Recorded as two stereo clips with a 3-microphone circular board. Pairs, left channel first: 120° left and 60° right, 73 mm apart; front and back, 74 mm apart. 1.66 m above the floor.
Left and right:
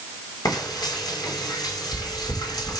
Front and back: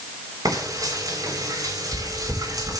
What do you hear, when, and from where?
0.5 s frying: 145° left, 6 m